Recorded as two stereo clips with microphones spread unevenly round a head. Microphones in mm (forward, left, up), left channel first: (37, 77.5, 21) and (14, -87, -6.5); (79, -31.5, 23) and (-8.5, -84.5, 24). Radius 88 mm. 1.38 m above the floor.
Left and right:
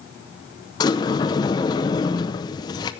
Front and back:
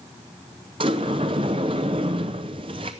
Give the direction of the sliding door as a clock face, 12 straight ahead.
7 o'clock.